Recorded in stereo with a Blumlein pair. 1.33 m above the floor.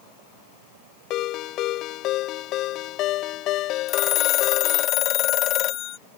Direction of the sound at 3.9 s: 35° left.